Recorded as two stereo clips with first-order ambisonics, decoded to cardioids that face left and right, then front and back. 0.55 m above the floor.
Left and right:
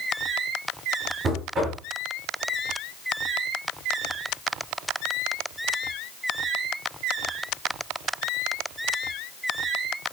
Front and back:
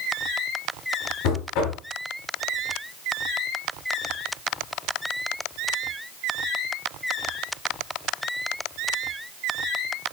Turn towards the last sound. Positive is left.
turn(degrees=-25)